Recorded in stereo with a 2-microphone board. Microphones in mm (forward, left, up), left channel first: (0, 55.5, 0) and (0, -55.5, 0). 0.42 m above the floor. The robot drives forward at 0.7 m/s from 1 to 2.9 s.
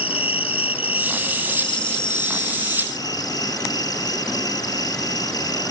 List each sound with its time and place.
0.0 s an insect: 60° left (ahead or behind); by 5.7 s 35° left (ahead or behind)